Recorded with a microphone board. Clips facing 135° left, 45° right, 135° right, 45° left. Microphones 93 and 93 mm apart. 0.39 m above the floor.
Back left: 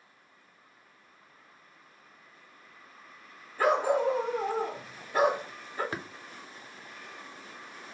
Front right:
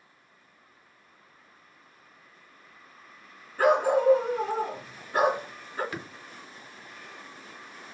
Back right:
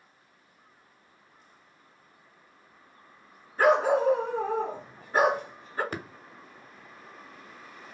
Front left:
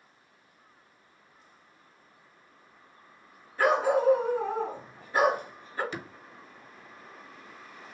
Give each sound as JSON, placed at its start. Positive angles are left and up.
{"t": 3.6, "sound": "a dog barking", "azimuth_deg": -75, "distance_m": 2.0}
{"t": 5.9, "sound": "tapping", "azimuth_deg": -170, "distance_m": 0.6}